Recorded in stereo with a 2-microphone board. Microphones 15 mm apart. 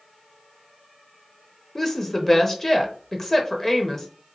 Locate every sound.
1.8 s a woman speaking: 20° left (ahead or behind), 0.6 m